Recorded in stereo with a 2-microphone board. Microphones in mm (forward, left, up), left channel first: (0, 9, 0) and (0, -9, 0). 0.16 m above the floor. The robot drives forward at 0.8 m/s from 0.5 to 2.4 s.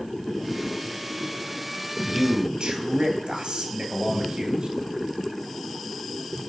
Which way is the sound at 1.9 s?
65° right (ahead or behind).